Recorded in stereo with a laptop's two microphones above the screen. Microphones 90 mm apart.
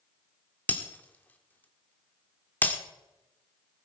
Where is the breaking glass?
20° left (ahead or behind), 1.5 m.